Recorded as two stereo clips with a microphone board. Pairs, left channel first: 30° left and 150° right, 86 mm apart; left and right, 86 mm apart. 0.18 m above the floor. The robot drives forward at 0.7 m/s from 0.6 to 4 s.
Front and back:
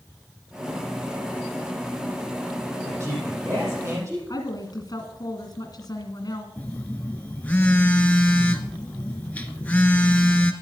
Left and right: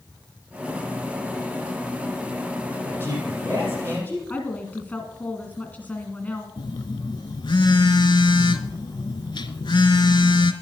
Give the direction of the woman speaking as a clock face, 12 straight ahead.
11 o'clock.